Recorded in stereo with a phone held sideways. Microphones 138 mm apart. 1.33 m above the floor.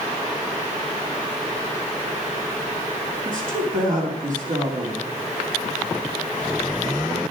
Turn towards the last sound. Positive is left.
turn(degrees=-70)  # may be behind; listen again after turning